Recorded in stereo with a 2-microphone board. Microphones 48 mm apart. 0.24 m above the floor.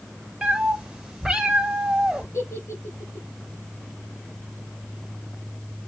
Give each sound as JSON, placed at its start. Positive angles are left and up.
{"t": 0.4, "sound": "a cat meowing", "side_deg": -5, "distance_m": 1.4}
{"t": 2.3, "sound": "a giggle", "side_deg": 65, "distance_m": 5.0}